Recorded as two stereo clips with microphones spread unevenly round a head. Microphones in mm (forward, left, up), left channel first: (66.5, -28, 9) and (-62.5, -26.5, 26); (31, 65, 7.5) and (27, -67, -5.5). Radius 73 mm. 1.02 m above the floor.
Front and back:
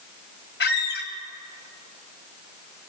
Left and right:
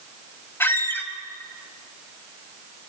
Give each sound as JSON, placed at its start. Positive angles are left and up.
{"t": 0.6, "sound": "a squeak", "azimuth_deg": 15, "distance_m": 2.0}